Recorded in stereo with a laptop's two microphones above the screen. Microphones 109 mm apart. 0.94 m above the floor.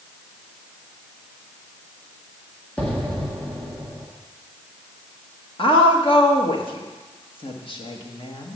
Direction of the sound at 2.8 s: 10° left (ahead or behind).